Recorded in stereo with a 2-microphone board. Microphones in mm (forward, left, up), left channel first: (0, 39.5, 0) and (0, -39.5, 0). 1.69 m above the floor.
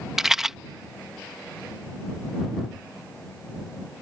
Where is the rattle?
5° right (ahead or behind).